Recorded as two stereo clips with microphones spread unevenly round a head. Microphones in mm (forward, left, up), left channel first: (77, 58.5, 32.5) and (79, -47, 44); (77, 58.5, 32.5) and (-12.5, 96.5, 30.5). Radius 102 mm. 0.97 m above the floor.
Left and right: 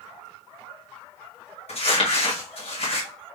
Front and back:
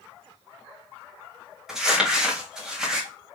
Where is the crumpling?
75° left, 1.6 m.